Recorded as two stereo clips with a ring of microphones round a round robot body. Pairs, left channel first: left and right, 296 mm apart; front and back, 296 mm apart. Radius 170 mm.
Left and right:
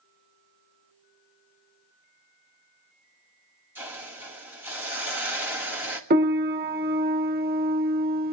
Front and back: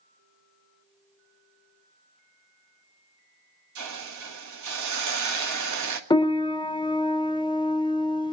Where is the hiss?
175° right, 1.6 m.